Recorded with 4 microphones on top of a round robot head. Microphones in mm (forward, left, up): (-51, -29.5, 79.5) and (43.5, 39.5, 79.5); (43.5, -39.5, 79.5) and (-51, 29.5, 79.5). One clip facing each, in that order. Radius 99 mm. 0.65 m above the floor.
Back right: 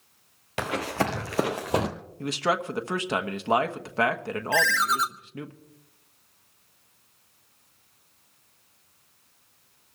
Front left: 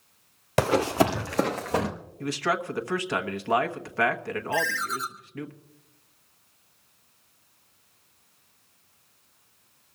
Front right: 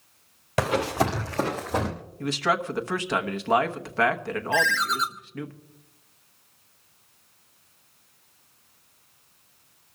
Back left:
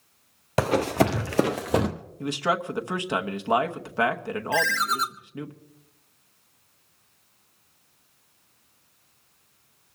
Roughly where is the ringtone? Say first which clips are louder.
Back right 5 dB, even; behind.